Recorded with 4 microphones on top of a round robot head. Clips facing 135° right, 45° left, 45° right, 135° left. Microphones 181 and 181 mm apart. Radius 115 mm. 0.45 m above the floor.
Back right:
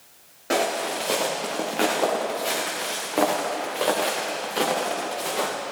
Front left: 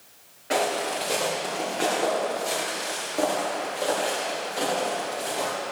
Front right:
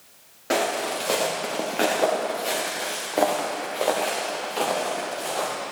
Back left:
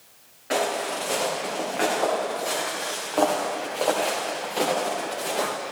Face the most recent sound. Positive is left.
turn(degrees=-155)